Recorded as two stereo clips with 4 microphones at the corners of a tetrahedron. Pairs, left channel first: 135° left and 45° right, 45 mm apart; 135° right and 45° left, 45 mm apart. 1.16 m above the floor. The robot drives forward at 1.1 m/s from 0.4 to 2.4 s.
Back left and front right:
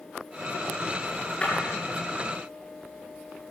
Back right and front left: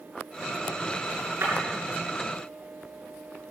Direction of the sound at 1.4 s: 70° left.